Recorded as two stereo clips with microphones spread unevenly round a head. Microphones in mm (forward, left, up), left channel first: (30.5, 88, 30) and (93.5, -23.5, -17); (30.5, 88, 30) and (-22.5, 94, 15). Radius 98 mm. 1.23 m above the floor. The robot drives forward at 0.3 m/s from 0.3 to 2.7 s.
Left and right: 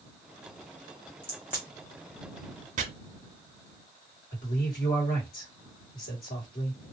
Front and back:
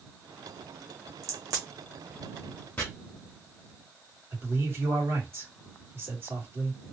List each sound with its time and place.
1.2 s a crack: 160° right, 1.0 m; by 1.6 s 165° right, 1.1 m
2.8 s chopping: 40° right, 0.8 m
4.3 s a man speaking: 135° left, 1.7 m